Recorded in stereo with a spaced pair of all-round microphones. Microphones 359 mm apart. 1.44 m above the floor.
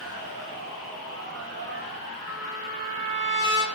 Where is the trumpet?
30° left (ahead or behind), 2 m.